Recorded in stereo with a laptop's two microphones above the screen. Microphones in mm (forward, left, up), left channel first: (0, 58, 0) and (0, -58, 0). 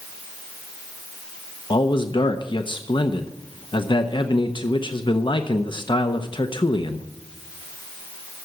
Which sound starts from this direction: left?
A man speaking, at 1.7 s.